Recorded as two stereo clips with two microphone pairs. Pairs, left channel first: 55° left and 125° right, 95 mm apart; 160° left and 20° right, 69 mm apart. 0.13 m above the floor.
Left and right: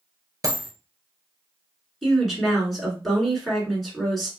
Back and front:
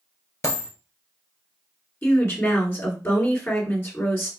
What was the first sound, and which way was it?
A dropped coin, 165° right.